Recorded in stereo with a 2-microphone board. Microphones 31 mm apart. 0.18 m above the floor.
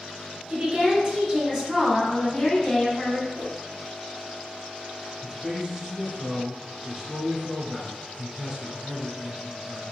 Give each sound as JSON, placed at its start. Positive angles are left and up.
{"t": 0.5, "sound": "a woman speaking", "side_deg": -30, "distance_m": 1.4}
{"t": 3.4, "sound": "a whoosh", "side_deg": 60, "distance_m": 1.4}
{"t": 5.2, "sound": "a man speaking", "side_deg": -10, "distance_m": 1.3}